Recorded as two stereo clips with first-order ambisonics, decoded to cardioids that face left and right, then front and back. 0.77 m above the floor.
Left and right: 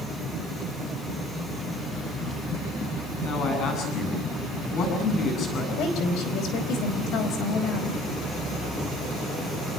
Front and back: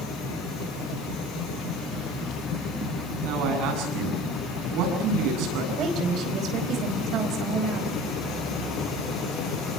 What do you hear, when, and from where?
3.2 s a man speaking: 145° left, 8.5 m
5.8 s a woman speaking: 130° left, 5 m